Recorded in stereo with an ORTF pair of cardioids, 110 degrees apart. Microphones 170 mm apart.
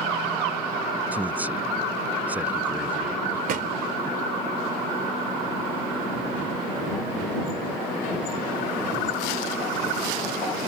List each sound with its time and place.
1.1 s a man speaking: 10° right
3.5 s a thud: 55° right